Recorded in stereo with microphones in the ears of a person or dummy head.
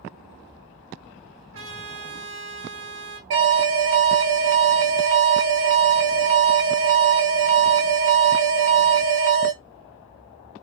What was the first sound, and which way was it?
A trumpet, 80° right.